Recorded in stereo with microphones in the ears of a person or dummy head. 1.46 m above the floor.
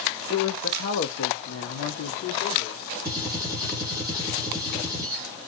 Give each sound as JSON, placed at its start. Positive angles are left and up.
{"t": 0.3, "sound": "a man speaking", "side_deg": 25, "distance_m": 0.5}
{"t": 3.0, "sound": "a gunshot", "side_deg": -20, "distance_m": 1.0}